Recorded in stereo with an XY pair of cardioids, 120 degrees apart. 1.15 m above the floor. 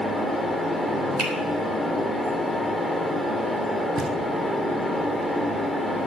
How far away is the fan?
About 1.8 m.